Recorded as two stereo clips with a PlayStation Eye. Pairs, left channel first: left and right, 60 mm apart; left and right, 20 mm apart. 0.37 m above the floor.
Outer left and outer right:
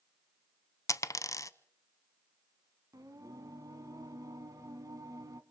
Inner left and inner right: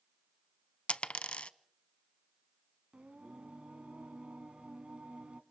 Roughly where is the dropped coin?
Left.